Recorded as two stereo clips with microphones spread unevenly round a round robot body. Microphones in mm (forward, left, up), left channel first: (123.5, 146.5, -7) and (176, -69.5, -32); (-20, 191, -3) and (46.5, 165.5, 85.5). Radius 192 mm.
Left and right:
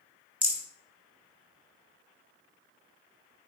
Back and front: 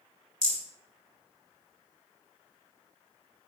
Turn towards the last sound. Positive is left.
turn(degrees=5)